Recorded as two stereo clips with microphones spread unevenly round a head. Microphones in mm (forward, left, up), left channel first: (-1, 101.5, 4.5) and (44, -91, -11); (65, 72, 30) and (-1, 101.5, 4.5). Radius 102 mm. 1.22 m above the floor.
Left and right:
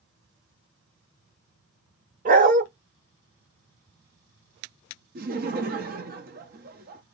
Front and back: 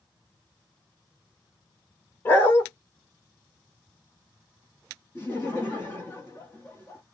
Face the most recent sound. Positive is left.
turn(degrees=-105)